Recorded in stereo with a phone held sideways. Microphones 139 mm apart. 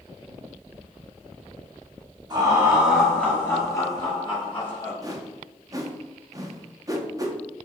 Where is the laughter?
30° right (ahead or behind), 1.3 m; by 4.9 s 40° left (ahead or behind), 2.5 m.